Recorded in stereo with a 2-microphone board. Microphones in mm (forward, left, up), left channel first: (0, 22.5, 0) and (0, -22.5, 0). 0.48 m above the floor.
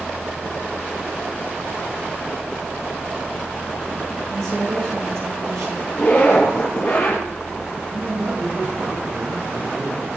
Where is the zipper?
20° left (ahead or behind), 6 m.